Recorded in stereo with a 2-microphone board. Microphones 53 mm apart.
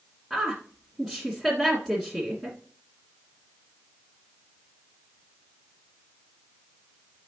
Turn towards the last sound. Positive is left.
turn(degrees=0)  # may be behind; listen again after turning